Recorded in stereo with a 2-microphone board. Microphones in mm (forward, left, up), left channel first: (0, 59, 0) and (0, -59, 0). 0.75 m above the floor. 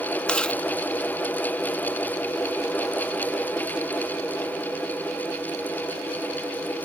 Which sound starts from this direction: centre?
Chewing, at 0.3 s.